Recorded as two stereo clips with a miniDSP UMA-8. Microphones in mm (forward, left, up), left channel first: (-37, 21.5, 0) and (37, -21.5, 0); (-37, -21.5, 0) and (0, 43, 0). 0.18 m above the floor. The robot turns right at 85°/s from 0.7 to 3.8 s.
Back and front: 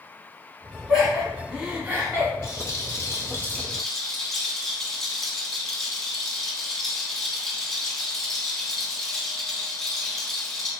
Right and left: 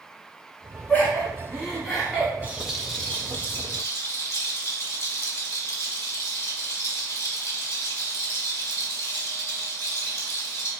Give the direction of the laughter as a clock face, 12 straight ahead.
4 o'clock.